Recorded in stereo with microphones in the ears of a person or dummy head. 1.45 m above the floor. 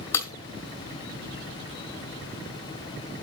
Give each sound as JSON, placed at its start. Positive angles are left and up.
{"t": 0.1, "sound": "breaking glass", "side_deg": 15, "distance_m": 2.0}